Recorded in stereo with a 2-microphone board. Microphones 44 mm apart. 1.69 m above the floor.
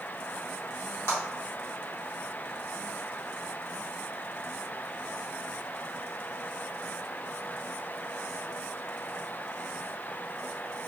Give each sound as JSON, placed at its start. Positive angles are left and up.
{"t": 1.1, "sound": "a clap", "side_deg": 80, "distance_m": 1.7}